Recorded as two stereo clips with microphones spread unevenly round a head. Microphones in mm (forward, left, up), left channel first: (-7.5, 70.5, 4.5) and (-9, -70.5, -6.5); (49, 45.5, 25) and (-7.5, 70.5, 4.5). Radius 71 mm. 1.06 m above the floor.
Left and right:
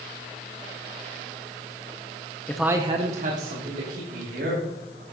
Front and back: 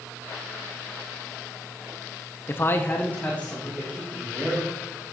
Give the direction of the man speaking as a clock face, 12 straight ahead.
11 o'clock.